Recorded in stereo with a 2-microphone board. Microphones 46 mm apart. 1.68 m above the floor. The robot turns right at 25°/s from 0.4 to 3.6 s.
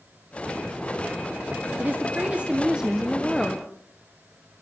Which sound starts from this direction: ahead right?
A woman speaking, at 1.8 s.